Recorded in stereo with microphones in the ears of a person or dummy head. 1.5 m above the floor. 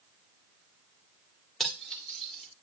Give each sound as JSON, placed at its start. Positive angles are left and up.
{"t": 1.6, "sound": "cutlery clinking", "side_deg": 0, "distance_m": 2.5}